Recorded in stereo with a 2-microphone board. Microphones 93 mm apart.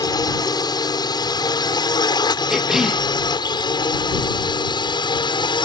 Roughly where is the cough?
Centre.